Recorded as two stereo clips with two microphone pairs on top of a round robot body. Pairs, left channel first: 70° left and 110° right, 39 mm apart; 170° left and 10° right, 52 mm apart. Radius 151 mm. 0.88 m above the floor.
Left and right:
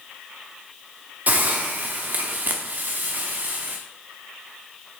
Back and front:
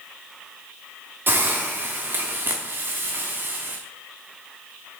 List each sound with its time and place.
1.3 s a hiss: 60° right, 0.8 m